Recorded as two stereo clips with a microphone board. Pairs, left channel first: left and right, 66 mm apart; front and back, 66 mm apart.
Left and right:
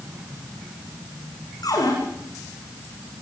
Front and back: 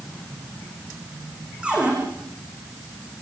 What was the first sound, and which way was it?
A cupboard door, 105° left.